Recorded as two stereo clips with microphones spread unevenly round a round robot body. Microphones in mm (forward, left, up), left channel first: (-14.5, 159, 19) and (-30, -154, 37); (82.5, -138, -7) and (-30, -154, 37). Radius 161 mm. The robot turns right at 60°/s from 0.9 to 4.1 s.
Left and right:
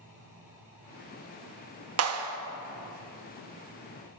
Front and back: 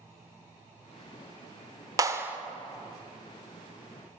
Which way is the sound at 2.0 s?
95° right.